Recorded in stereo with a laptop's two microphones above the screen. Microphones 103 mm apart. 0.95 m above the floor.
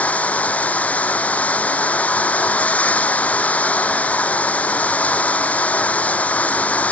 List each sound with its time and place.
0.0 s running water: 15° left (ahead or behind)